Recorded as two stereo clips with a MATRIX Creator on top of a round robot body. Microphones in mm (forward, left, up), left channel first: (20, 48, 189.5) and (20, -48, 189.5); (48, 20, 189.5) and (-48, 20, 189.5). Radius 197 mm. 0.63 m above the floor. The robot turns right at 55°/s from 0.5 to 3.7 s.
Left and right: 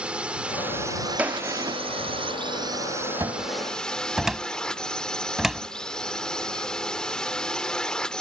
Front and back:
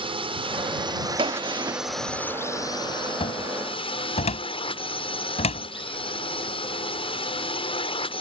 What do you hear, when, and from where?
0.0 s a drone: 170° right; by 8.2 s 10° left
1.2 s a gunshot: 165° right; by 1.8 s 130° right
3.2 s a cupboard door: 30° right; by 5.7 s 5° right